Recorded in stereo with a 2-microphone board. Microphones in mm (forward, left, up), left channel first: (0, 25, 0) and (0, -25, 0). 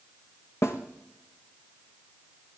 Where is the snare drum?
65° left (ahead or behind), 1.4 m.